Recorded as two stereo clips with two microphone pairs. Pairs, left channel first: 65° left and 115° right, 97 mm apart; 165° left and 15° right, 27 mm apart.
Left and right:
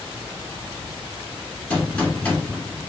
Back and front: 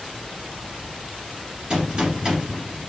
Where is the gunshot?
Straight ahead, 1.7 m.